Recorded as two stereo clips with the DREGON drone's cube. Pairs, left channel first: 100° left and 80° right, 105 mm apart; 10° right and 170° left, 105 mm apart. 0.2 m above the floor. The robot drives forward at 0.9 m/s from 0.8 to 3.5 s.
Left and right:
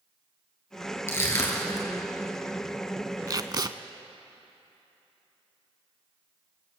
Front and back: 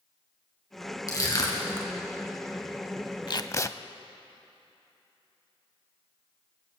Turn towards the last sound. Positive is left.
turn(degrees=-60)